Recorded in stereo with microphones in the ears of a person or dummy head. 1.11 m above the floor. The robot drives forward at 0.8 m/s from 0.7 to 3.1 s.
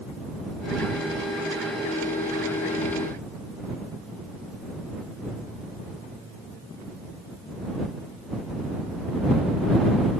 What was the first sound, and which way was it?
Only background noise.